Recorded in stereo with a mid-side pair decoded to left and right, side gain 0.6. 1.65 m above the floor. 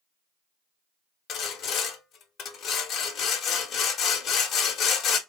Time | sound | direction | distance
1.3 | sawing | 55° left | 1.2 m